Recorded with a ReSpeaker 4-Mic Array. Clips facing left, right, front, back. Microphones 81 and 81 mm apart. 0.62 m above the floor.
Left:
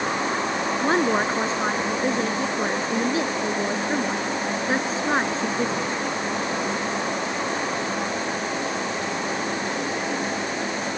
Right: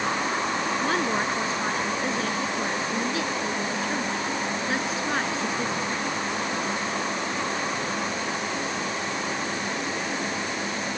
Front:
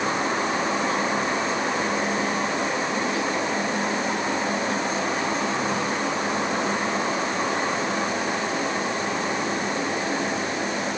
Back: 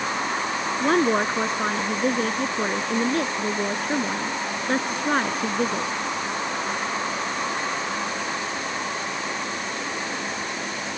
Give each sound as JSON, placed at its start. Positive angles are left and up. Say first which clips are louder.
{"t": 0.8, "sound": "a woman speaking", "louder": "left 7 dB, back 4 dB", "azimuth_deg": 150}